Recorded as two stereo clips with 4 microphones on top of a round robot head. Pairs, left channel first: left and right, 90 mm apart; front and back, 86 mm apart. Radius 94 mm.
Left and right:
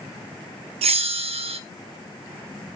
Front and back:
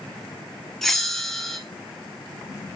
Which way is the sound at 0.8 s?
85° right.